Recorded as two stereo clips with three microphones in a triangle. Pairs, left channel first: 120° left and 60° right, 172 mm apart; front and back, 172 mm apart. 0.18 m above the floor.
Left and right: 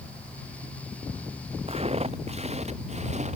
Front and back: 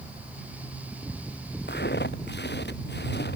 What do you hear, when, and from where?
1.7 s footsteps: 5° right; by 3.4 s 10° right